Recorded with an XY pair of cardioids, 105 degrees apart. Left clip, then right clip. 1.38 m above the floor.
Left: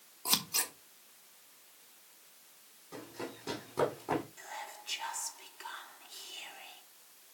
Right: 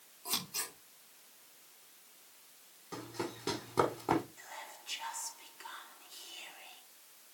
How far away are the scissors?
About 3 m.